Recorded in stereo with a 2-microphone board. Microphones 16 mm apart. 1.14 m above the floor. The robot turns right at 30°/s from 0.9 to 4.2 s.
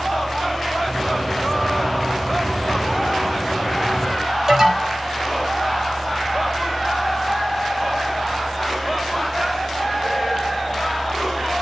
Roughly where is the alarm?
Right.